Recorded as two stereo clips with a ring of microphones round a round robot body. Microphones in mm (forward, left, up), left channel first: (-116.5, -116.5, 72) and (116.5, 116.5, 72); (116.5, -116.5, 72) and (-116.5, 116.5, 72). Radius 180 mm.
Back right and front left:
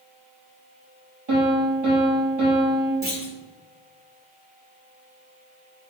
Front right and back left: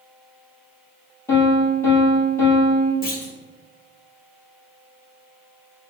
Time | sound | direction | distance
1.3 | a piano | 40° left | 3.5 m
3.0 | a clunk | straight ahead | 1.7 m